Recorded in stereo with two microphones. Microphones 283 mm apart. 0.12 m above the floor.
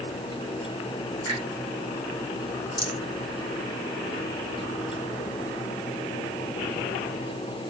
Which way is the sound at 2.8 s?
65° left (ahead or behind).